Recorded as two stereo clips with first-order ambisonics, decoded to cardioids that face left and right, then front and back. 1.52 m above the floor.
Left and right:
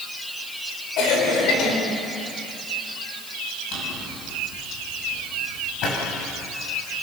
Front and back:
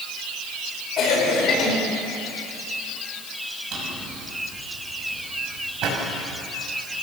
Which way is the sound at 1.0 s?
55° left.